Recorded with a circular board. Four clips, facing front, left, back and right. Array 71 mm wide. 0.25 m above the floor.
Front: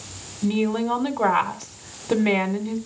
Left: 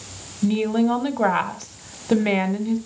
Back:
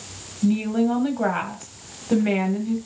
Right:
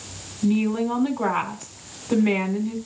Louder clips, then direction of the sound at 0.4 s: Left 2 dB, back 2 dB; 65° left.